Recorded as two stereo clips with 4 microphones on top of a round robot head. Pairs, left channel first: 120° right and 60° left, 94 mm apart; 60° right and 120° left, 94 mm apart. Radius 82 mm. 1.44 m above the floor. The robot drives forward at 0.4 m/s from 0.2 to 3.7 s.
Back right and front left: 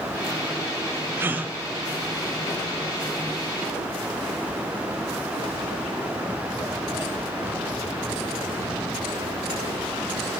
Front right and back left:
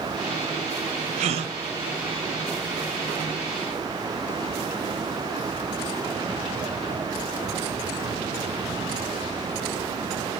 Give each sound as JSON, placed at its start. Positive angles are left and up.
{"t": 1.2, "sound": "a gasp", "azimuth_deg": 125, "distance_m": 0.6}